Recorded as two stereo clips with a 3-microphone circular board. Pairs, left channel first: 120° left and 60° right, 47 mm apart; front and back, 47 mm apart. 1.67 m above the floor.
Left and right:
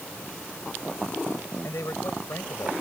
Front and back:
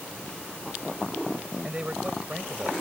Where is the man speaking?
110° left; by 2.7 s 115° left.